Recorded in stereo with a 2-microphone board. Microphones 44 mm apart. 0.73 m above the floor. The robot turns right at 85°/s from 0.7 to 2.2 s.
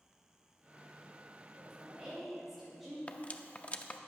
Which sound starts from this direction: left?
Cutlery clinking, at 3.1 s.